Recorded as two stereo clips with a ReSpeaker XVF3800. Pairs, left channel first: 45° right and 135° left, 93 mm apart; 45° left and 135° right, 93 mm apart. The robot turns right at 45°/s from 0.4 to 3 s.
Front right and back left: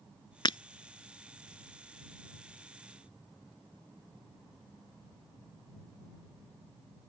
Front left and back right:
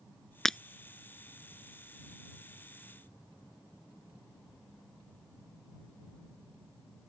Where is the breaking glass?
40° right; by 0.6 s 35° right.